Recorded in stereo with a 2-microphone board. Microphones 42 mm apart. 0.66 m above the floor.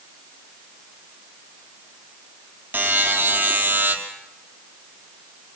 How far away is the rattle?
No rattle in this recording.